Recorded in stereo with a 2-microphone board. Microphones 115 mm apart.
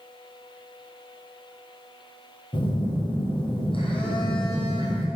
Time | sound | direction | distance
2.5 | a phone buzzing | 50° left (ahead or behind) | 4 m